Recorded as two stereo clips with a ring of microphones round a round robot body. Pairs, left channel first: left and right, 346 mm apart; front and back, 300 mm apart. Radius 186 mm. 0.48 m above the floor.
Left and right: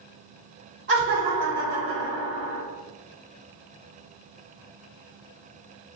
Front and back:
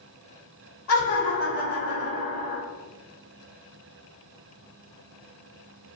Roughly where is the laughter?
Ahead right.